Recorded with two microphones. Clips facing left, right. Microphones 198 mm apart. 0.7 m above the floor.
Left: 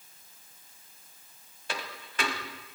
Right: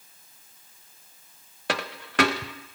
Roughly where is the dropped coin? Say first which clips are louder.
Right 9 dB; right.